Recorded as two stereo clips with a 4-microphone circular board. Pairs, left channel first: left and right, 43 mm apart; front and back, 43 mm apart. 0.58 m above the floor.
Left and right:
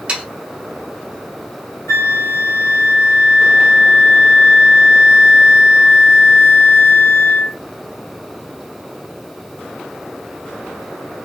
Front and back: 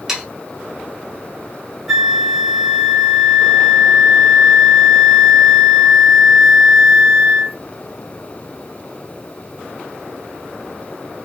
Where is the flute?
90° left, 1.4 m.